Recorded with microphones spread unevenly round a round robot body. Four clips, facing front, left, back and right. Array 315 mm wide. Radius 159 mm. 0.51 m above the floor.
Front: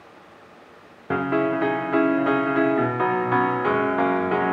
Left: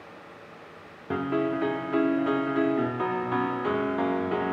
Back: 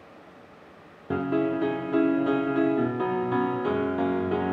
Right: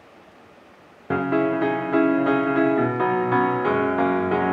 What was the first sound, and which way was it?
A piano, 75° right.